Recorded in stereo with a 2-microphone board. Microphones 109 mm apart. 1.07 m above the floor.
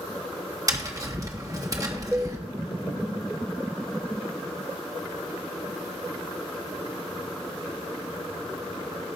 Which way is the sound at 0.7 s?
30° right (ahead or behind).